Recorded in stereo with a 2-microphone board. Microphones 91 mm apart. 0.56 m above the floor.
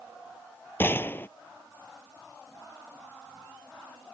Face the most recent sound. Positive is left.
turn(degrees=25)  # may be behind; listen again after turning